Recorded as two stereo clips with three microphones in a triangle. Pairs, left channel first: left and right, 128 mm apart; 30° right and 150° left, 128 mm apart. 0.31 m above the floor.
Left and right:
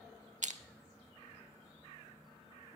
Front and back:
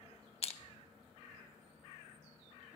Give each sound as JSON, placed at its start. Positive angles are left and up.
{"t": 0.4, "sound": "crushing", "azimuth_deg": -70, "distance_m": 0.6}